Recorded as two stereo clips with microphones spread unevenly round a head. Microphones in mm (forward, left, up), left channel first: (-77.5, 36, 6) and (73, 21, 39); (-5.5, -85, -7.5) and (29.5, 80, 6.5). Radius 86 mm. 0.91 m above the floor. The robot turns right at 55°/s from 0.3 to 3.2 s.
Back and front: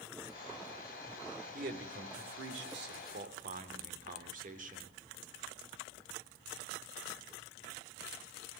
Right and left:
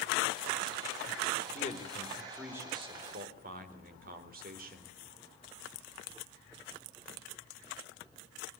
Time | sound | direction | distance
1.5 | a man speaking | 55° right | 3.5 m